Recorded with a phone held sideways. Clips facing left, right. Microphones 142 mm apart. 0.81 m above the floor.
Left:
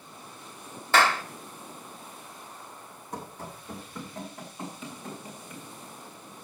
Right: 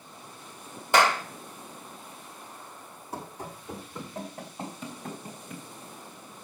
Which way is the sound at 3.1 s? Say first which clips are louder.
Right 1 dB; 5° right (ahead or behind).